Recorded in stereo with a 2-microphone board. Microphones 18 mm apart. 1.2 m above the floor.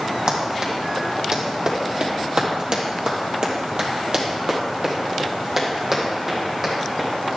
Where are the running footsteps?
55° right (ahead or behind), 3.5 m; by 7.1 s 10° right (ahead or behind), 4 m.